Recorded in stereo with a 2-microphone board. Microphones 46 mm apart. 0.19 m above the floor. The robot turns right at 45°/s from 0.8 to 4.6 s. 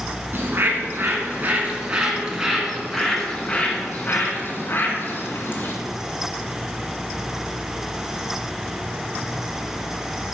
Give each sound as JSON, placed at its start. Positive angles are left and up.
{"t": 0.3, "sound": "a bird", "azimuth_deg": -80, "distance_m": 1.8}